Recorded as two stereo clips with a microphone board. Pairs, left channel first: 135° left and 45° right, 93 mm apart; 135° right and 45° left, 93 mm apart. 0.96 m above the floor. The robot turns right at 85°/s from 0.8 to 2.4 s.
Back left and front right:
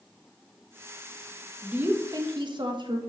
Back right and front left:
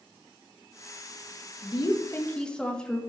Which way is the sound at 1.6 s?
125° right.